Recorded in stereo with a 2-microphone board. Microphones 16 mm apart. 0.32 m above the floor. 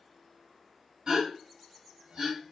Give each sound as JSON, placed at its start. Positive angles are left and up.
{"t": 1.1, "sound": "a gasp", "side_deg": -50, "distance_m": 3.0}